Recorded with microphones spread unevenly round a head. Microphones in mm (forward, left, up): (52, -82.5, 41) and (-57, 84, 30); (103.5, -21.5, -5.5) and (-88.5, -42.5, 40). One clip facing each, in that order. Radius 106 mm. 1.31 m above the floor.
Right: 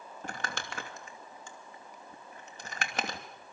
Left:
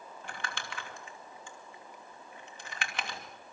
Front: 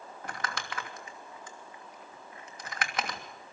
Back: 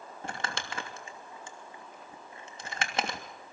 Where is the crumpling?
110° right, 2.5 m.